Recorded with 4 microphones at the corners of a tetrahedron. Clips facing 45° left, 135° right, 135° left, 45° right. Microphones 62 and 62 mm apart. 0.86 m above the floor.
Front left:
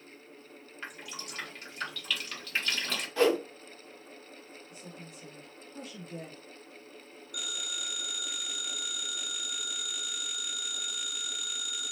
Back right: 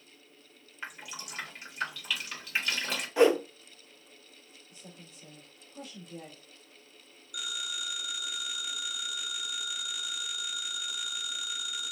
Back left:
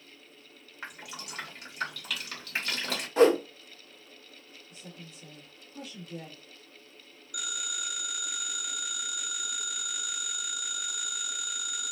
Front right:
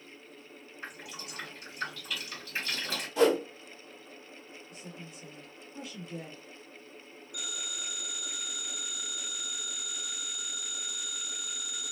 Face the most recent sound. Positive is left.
turn(degrees=140)